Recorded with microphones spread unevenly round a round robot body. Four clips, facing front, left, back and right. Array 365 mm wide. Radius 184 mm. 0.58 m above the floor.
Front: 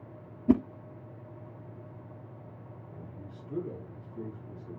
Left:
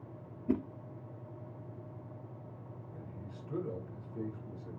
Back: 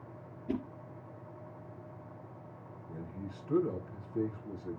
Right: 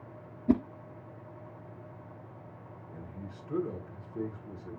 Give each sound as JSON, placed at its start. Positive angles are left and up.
{"t": 0.5, "sound": "a whoosh", "azimuth_deg": -60, "distance_m": 0.5}
{"t": 2.9, "sound": "a man speaking", "azimuth_deg": -175, "distance_m": 4.5}